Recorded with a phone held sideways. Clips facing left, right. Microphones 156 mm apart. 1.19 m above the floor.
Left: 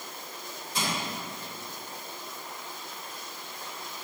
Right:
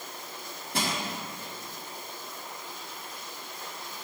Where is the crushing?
65° right (ahead or behind), 1.6 m.